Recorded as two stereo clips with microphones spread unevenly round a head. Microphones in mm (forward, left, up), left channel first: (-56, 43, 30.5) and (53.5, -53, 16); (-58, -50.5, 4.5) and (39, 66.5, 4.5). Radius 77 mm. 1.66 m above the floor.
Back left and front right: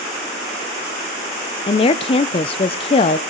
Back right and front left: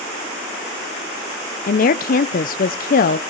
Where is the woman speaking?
165° right, 0.5 m.